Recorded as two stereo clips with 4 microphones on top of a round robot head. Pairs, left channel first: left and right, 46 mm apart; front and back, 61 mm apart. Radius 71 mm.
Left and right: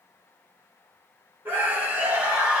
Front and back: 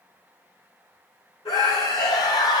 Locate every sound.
1.4 s a scream: 25° right, 1.4 m; by 2.6 s 10° right, 0.9 m